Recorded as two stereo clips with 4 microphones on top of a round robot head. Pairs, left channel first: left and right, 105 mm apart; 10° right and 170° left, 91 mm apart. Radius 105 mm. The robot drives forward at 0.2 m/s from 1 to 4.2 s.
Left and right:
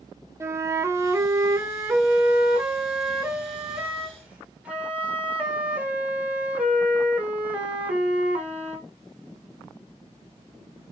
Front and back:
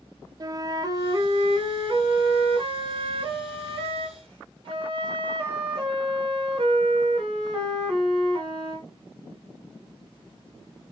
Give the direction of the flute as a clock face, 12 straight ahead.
5 o'clock.